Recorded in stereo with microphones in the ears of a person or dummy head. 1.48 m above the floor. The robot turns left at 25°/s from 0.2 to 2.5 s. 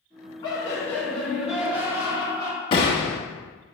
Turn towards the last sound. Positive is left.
turn(degrees=25)  # may be behind; listen again after turning